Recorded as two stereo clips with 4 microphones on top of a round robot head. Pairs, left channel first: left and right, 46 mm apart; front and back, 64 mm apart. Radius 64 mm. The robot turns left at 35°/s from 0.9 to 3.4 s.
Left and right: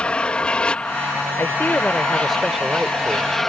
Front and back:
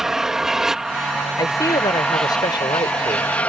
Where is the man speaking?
35° left; by 3.4 s 30° right.